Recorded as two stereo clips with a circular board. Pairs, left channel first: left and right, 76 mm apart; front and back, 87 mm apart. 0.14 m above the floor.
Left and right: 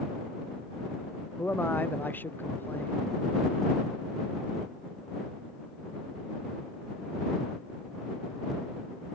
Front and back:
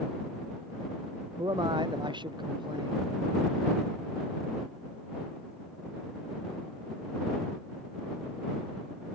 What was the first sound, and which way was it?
A man speaking, 155° left.